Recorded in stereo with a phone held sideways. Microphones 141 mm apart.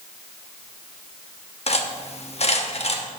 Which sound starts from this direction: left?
Cutlery clinking, at 1.7 s.